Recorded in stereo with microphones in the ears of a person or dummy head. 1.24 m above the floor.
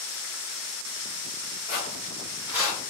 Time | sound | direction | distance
1.7 | footsteps | 10° left (ahead or behind) | 1.7 m